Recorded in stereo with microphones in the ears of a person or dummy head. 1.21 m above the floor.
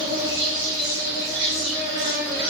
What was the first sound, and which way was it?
An insect, 25° right (ahead or behind).